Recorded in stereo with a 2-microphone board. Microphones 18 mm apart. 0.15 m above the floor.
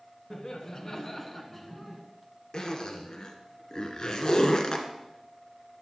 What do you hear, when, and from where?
0.3 s laughter: 40° left (ahead or behind), 1.8 m; by 2.0 s 5° left (ahead or behind), 1.8 m
2.5 s a zipper: 45° left (ahead or behind), 1.7 m